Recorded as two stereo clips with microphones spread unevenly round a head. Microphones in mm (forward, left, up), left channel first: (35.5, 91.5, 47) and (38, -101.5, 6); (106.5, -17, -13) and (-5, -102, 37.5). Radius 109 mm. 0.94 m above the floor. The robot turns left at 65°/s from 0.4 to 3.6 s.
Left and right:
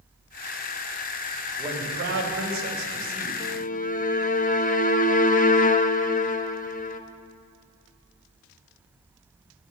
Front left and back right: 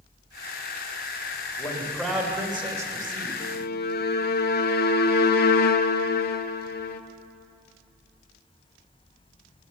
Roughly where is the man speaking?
Ahead.